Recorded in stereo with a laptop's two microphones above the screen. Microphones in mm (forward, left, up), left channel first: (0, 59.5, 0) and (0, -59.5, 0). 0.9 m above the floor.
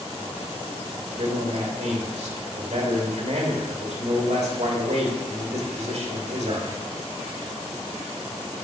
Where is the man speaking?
75° right (ahead or behind), 1.6 m.